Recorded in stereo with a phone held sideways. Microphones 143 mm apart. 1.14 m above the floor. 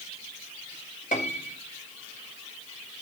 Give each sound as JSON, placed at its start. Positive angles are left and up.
{"t": 1.1, "sound": "a piano", "side_deg": 70, "distance_m": 1.8}